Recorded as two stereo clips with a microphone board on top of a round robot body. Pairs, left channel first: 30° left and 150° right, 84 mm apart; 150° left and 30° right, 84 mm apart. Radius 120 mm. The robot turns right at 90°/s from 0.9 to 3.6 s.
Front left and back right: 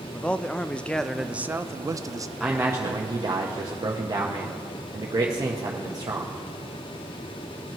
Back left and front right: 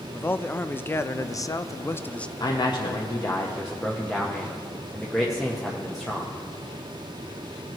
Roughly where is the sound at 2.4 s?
Behind left.